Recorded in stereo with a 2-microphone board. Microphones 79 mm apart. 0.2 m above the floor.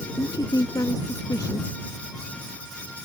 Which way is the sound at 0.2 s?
55° left (ahead or behind).